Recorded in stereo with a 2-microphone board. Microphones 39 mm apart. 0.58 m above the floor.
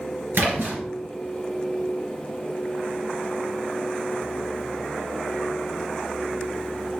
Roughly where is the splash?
Right.